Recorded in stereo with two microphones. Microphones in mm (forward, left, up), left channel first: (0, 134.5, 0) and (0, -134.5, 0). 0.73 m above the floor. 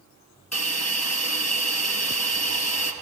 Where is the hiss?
70° left (ahead or behind), 2.5 m.